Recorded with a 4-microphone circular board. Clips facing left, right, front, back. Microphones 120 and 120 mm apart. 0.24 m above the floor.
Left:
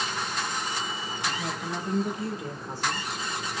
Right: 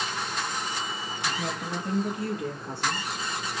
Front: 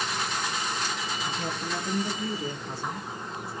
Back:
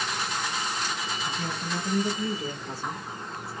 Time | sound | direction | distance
1.2 | a woman speaking | 90° right | 3 m